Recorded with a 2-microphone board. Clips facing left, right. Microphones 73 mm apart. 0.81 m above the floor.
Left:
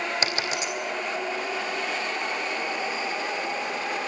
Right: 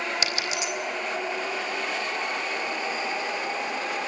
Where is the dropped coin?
35° left (ahead or behind), 3.5 m.